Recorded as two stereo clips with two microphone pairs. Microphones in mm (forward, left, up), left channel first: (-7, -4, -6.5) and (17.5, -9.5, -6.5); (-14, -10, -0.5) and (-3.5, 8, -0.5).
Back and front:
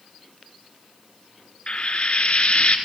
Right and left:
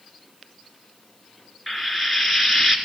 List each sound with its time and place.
1.7 s frying: 140° left, 1.5 m